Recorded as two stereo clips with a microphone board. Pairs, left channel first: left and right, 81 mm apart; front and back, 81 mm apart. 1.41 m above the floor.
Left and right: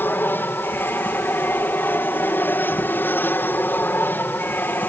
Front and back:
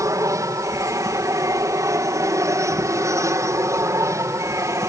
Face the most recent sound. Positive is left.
turn(degrees=145)